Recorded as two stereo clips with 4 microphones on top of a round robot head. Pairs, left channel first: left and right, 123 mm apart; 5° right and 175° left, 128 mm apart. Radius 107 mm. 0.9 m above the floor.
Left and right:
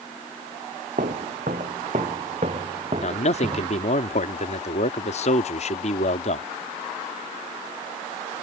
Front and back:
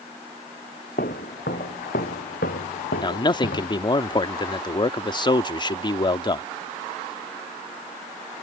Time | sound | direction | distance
1.0 | footsteps | 45° right | ?
3.0 | a man speaking | 50° left | ?